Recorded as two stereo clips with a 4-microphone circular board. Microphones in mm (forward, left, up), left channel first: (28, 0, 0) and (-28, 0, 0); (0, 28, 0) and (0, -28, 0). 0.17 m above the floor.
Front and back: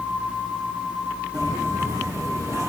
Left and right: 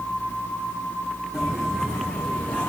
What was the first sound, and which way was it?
Footsteps, 175° left.